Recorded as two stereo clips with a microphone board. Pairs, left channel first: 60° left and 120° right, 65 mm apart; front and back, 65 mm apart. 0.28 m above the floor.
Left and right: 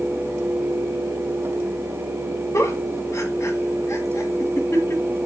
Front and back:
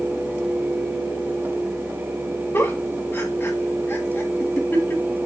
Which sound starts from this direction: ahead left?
A giggle, at 2.5 s.